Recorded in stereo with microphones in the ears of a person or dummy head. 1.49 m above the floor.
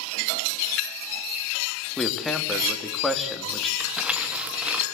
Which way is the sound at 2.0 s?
Centre (ahead or behind).